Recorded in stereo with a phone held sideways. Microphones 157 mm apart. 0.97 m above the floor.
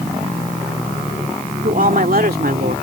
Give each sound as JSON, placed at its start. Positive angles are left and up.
{"t": 1.6, "sound": "a woman speaking", "side_deg": -60}